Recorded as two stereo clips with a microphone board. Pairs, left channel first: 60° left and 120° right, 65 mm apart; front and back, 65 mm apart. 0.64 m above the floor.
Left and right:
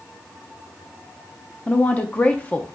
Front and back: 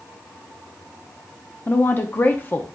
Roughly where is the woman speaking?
Ahead.